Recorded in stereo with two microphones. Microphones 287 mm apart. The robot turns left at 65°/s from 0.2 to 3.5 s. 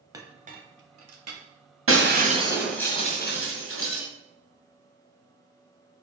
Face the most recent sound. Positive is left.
turn(degrees=130)